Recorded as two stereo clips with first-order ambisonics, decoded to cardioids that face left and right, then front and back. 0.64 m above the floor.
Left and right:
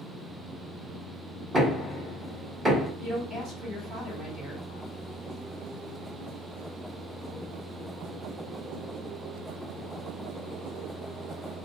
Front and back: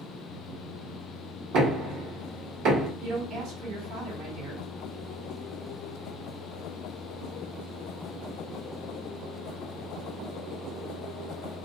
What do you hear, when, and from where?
1.5 s knocking: 160° right, 1.3 m
3.0 s a woman speaking: 150° right, 1.9 m